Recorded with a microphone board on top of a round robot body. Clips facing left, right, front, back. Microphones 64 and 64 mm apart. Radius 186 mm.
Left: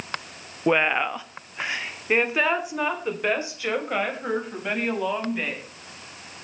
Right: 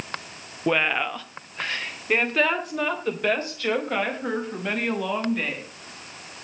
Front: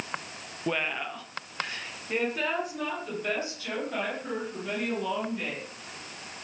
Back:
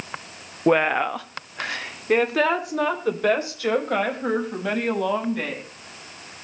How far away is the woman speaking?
About 0.9 m.